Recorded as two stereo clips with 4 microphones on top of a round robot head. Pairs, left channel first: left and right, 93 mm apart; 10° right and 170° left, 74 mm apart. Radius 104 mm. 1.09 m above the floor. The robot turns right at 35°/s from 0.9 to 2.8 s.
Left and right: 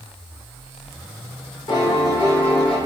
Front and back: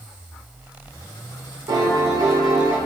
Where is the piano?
130° left, 0.7 m; by 2.8 s 170° left, 0.7 m.